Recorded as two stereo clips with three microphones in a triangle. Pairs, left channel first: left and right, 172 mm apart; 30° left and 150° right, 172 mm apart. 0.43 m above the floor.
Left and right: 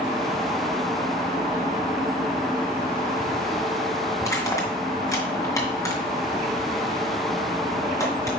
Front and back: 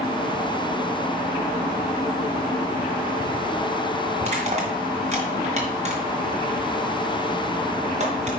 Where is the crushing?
160° left, 2.5 m.